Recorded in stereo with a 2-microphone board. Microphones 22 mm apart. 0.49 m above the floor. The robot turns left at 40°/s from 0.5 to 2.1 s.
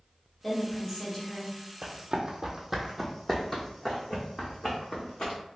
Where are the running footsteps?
35° right (ahead or behind), 0.8 m; by 5.4 s 40° left (ahead or behind), 1.7 m.